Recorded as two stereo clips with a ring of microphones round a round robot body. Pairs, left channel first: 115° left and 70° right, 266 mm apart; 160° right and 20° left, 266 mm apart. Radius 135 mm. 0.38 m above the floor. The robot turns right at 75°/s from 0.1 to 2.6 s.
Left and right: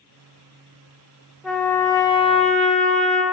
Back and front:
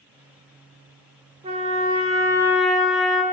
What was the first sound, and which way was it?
A trumpet, 25° left.